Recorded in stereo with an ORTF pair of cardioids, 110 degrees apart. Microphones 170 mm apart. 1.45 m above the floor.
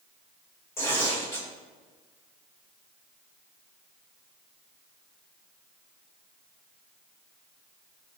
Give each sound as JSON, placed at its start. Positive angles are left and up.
{"t": 0.8, "sound": "tearing paper", "azimuth_deg": 15, "distance_m": 3.0}